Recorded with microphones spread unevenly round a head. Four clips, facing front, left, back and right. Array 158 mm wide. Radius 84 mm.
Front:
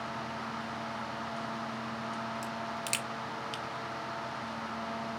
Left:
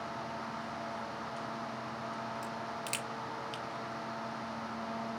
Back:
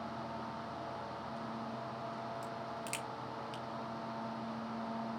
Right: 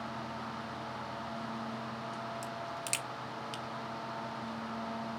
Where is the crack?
Straight ahead, 1.3 m.